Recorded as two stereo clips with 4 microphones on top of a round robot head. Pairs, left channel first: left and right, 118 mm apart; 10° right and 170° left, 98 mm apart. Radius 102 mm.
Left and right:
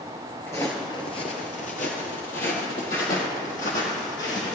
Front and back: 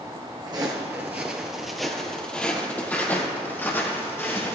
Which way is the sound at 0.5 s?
155° left.